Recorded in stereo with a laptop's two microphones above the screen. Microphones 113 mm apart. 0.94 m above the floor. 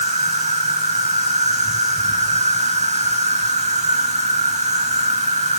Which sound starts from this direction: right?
An insect, at 0.0 s.